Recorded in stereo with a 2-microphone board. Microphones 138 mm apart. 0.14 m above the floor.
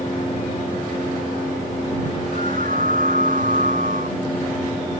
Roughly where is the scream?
Right.